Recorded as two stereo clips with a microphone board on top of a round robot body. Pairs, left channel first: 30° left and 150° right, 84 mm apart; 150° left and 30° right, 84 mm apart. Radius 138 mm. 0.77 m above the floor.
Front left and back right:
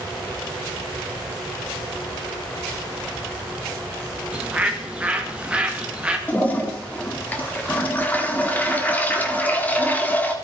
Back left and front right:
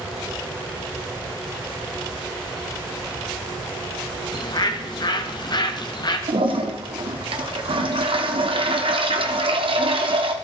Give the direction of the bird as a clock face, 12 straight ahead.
8 o'clock.